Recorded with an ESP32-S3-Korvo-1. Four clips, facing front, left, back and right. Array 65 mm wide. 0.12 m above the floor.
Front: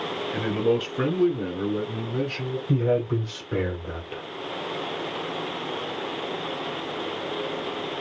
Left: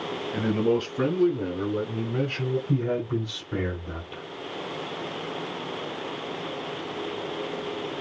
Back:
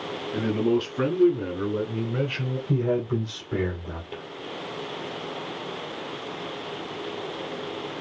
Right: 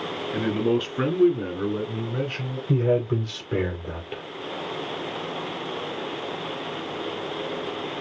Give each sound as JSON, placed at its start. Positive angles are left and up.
{"t": 0.3, "sound": "a man speaking", "azimuth_deg": -65, "distance_m": 1.9}
{"t": 2.7, "sound": "a man speaking", "azimuth_deg": -70, "distance_m": 2.5}